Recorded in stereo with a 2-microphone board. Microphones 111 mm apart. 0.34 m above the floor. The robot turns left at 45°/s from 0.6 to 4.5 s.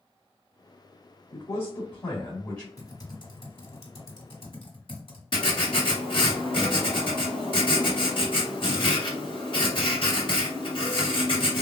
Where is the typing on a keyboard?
30° left (ahead or behind), 1.8 m; by 5.2 s 60° left (ahead or behind), 1.8 m.